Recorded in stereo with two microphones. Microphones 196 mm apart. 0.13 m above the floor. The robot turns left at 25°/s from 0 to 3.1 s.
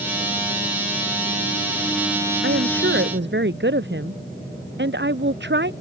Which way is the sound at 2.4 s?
80° right.